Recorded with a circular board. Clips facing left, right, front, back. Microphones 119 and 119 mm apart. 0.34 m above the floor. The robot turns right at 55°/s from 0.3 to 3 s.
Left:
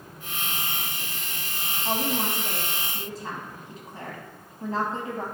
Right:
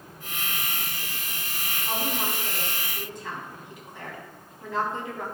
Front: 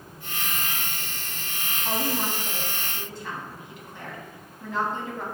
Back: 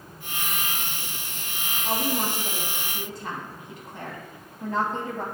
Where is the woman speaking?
75° left, 2.5 m; by 5.2 s 140° left, 2.5 m.